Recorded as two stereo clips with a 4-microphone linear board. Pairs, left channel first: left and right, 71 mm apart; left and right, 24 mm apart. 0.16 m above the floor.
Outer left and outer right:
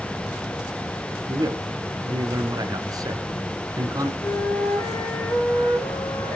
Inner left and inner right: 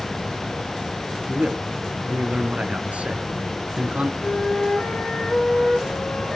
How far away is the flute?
About 5 m.